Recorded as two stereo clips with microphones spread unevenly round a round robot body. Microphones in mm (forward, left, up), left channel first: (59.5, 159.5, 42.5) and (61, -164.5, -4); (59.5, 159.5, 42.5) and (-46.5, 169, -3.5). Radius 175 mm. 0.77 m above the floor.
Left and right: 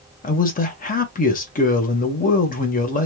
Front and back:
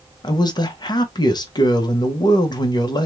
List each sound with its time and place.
0.2 s a man speaking: 50° left, 0.9 m